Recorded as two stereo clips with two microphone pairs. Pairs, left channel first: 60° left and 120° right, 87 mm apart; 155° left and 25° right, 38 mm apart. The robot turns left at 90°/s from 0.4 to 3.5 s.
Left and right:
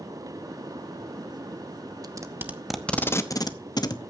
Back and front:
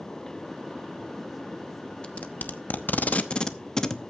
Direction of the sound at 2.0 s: 150° right.